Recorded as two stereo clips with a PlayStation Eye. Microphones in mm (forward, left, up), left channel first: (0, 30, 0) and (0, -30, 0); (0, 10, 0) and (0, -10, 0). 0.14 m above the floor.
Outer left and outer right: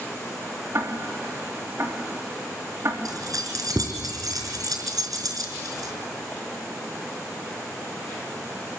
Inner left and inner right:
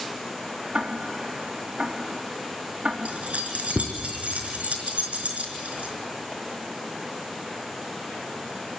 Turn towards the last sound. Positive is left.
turn(degrees=-80)